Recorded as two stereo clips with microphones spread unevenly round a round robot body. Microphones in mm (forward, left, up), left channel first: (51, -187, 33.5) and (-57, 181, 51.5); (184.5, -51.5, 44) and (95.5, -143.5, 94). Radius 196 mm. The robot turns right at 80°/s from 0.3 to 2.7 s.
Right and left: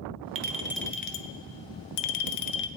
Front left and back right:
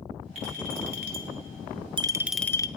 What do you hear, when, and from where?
0.3 s a clink: 165° left, 0.6 m; by 2.7 s 10° right, 0.6 m